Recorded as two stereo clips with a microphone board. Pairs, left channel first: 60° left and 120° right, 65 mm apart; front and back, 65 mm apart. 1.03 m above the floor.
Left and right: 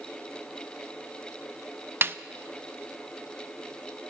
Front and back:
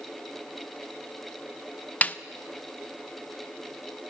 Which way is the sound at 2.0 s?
65° right.